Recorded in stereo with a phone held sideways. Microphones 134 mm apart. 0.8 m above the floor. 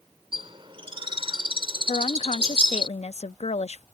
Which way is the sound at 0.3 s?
40° right (ahead or behind).